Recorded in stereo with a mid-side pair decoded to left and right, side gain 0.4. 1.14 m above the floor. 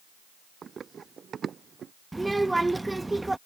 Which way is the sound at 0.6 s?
45° right.